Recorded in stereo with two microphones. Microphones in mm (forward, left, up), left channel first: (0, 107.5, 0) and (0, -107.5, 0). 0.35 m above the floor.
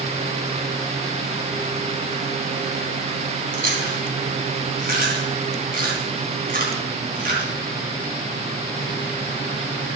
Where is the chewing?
45° right (ahead or behind), 3.5 m.